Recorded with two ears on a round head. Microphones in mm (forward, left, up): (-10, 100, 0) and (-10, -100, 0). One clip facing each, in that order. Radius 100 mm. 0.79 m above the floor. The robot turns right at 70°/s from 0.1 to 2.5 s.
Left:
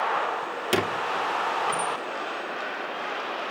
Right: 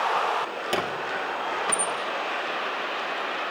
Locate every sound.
0.7 s a squeak: 25° left (ahead or behind), 1.4 m; by 1.9 s 55° right (ahead or behind), 1.4 m